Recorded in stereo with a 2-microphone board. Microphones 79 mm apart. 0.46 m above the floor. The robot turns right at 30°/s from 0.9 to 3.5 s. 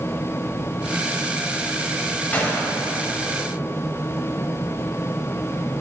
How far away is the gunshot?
About 1.8 m.